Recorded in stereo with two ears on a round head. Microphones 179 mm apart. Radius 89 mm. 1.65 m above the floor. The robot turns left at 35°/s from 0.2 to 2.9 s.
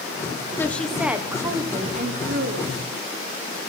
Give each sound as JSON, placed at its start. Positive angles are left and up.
{"t": 0.6, "sound": "a woman speaking", "azimuth_deg": 10, "distance_m": 1.1}